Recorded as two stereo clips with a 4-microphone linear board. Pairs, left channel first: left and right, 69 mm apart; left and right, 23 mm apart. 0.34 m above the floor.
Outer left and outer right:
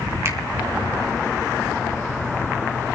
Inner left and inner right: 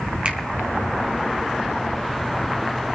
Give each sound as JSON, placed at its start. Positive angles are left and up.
{"t": 0.2, "sound": "a finger snap", "side_deg": -45, "distance_m": 1.7}